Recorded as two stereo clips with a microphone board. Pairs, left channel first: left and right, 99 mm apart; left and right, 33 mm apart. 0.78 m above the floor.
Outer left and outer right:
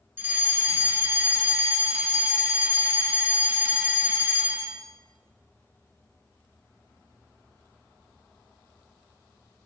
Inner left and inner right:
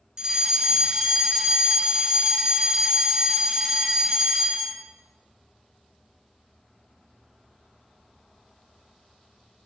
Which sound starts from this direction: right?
A fire alarm, at 0.2 s.